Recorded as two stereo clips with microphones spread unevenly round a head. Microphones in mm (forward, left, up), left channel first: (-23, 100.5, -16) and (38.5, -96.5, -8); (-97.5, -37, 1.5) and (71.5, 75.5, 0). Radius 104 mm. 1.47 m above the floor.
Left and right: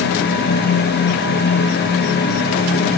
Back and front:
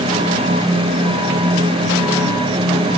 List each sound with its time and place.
Only background noise.